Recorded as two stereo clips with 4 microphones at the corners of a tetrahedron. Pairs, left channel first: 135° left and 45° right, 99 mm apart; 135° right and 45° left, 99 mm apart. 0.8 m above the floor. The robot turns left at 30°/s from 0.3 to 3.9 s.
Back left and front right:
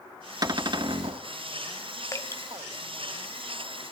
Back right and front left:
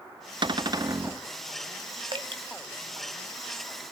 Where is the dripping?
80° left, 1.3 m; by 2.4 s 70° left, 1.3 m.